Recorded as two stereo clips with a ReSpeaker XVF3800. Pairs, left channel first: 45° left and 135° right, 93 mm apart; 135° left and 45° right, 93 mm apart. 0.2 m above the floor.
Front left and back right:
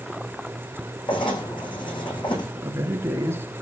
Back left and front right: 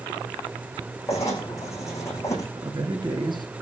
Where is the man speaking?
75° right, 3 m.